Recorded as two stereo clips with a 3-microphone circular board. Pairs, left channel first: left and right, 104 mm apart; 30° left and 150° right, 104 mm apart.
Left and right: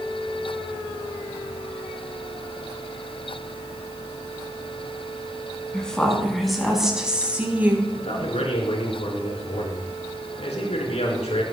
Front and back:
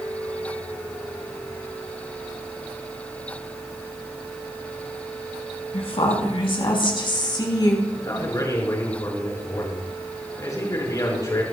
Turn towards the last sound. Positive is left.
turn(degrees=85)